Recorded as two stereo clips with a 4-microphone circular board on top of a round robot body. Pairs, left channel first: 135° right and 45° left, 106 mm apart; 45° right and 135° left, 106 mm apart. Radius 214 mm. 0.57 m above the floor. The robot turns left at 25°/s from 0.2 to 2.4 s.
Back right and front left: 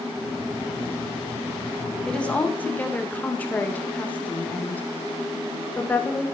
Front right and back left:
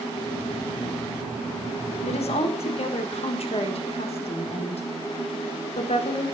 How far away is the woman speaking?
About 2.5 m.